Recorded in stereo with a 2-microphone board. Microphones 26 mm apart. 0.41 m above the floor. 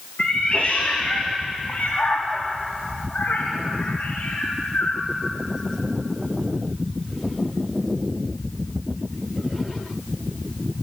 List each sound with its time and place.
0.2 s a cat meowing: 40° left (ahead or behind), 4 m; by 5.1 s 85° left, 7 m